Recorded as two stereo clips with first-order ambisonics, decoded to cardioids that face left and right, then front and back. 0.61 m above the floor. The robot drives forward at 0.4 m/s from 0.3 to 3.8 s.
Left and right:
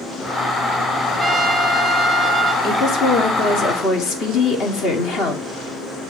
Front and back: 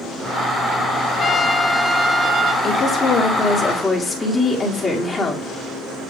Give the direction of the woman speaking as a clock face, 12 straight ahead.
10 o'clock.